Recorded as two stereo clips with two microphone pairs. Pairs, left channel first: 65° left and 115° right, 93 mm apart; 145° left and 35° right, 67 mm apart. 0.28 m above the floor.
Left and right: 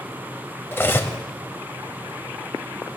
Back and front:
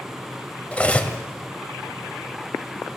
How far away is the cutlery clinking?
About 0.6 m.